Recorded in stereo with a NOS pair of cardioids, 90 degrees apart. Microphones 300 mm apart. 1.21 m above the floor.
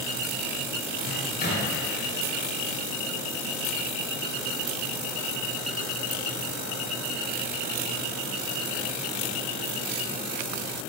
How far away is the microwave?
About 1.5 m.